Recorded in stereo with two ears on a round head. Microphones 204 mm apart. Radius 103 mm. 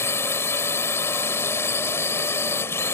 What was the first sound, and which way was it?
A drone, 10° left (ahead or behind).